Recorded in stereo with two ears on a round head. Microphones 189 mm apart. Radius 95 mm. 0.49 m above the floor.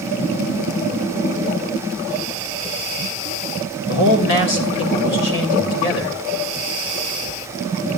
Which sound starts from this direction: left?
A man speaking, at 3.9 s.